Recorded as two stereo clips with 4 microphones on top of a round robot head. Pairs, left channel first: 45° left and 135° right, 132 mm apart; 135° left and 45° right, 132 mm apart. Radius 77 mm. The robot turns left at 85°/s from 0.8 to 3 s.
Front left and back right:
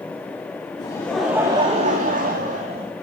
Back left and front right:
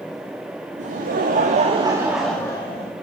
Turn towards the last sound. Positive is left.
turn(degrees=160)